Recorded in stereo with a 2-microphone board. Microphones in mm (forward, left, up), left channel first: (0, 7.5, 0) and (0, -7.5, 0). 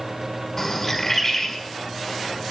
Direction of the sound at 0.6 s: 15° left (ahead or behind).